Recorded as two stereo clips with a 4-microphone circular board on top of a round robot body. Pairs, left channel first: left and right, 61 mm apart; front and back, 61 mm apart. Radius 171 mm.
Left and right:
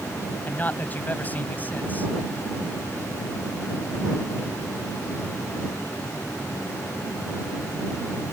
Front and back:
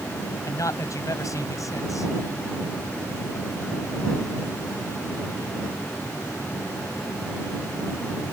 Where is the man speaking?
30° left.